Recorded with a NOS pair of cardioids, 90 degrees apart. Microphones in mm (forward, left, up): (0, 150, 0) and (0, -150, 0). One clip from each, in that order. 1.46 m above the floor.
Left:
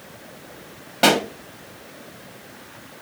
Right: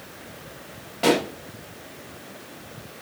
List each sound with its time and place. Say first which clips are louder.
1.0 s a pop: left 4 dB; 60° left, 1.8 m